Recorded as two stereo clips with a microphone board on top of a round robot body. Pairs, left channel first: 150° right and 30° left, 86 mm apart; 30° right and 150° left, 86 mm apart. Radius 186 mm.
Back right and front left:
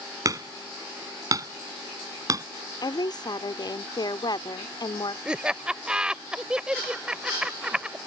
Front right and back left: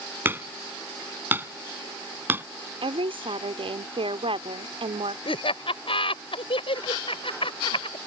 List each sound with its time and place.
0.2 s hammering: 80° left
2.8 s a woman speaking: 170° left
5.2 s laughter: 50° right